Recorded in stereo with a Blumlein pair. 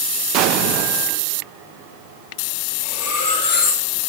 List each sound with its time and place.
0.3 s an explosion: 40° right, 0.7 m
2.8 s cutlery clinking: 60° left, 3.5 m